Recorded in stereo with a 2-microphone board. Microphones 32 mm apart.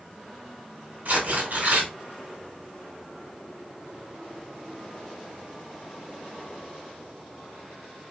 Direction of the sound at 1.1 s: 75° right (ahead or behind).